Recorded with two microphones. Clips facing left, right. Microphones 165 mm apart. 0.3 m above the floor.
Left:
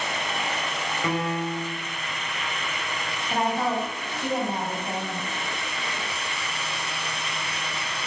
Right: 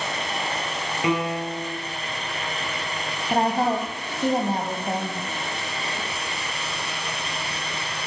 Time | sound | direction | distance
1.0 | a piano | 15° right (ahead or behind) | 4 m
3.3 | a woman speaking | 40° right (ahead or behind) | 1.8 m